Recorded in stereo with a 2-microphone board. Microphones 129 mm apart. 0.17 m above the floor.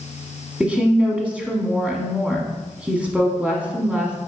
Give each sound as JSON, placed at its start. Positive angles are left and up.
{"t": 0.6, "sound": "a woman speaking", "side_deg": -10, "distance_m": 1.3}